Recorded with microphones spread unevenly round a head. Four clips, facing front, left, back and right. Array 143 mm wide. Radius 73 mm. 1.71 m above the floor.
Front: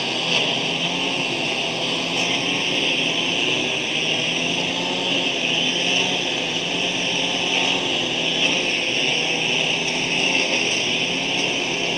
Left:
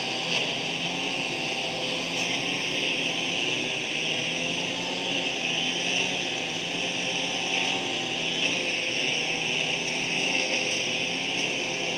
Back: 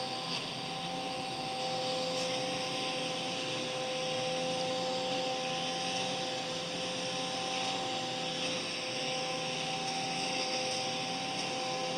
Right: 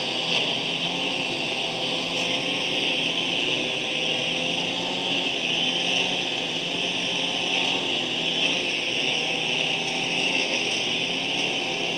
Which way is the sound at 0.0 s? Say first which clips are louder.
Right 2 dB, front 13 dB; 15° right.